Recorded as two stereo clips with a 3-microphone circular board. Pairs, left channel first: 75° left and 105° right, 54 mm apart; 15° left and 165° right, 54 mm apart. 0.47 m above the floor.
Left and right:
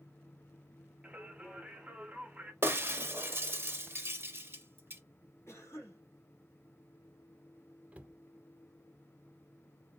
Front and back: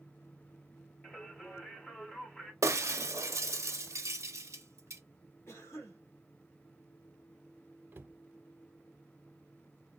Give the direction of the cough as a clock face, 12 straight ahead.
11 o'clock.